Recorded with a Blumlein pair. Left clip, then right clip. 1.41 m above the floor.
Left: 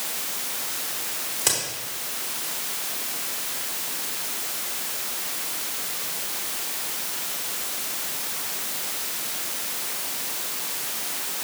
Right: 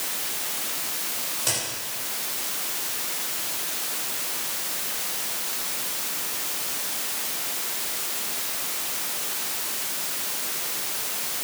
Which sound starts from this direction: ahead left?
A crack, at 1.4 s.